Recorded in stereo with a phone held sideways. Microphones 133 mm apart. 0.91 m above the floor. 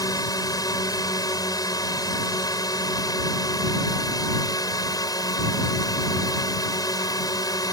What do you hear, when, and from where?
0.0 s a drone: 30° left (ahead or behind)